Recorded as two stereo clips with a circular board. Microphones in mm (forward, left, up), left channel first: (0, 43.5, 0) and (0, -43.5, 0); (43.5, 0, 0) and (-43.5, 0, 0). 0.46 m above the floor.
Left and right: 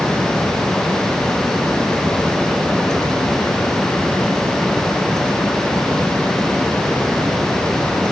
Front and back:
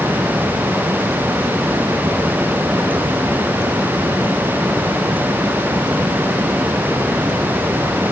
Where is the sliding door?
No sliding door in this recording.